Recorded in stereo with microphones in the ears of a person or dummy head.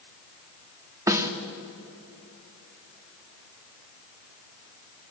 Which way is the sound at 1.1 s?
20° right (ahead or behind).